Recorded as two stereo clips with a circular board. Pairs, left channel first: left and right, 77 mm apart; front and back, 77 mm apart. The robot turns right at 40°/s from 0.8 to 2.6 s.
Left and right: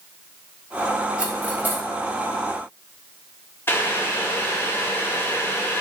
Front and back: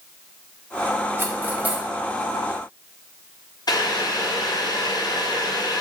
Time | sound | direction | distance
1.2 | cutlery clinking | 155° right | 0.6 m
3.7 | boiling | 30° left | 0.6 m